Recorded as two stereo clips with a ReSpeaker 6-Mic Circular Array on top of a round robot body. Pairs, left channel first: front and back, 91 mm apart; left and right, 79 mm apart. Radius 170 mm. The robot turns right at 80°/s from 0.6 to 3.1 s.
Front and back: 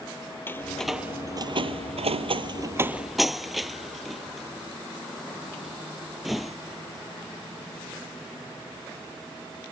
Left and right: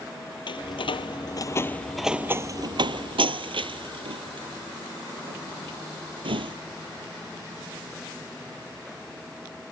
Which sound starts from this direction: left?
A door slam, at 0.5 s.